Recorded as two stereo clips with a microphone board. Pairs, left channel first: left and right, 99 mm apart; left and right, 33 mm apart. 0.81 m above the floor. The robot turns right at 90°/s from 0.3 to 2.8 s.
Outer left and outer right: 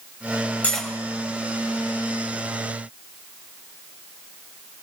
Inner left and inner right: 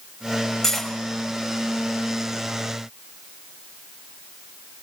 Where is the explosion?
I don't hear an explosion.